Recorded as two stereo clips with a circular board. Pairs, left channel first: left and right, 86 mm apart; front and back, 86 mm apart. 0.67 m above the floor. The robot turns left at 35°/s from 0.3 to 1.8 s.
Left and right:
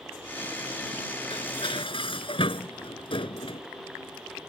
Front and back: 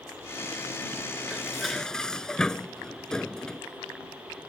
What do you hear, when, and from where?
1.3 s dishes clattering: 100° left; by 3.6 s 80° left